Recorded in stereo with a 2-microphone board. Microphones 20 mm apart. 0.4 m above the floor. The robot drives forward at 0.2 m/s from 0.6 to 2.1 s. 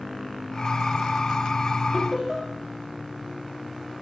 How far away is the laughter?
About 2.5 m.